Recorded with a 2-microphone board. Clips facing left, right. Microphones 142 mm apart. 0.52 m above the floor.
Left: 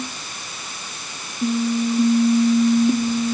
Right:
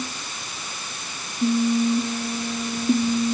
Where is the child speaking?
No child speaking in this recording.